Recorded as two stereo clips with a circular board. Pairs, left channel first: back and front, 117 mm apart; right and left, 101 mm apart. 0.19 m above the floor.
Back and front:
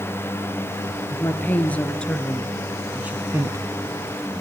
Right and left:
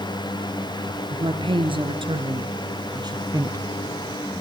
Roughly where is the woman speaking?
Left.